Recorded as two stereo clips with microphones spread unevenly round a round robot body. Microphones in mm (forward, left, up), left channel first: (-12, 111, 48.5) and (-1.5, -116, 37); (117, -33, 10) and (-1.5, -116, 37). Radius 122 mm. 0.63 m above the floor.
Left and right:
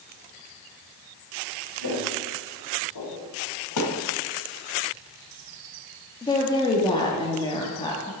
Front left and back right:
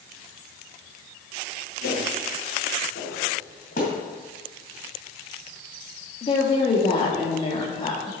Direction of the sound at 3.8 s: 90° left.